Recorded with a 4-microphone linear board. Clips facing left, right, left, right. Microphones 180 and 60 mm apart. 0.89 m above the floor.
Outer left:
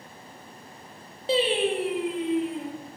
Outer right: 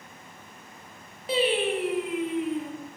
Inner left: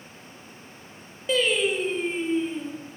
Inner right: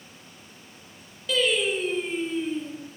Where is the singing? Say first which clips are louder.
Outer left 1 dB, inner left 1 dB; 30° left (ahead or behind), 0.5 m.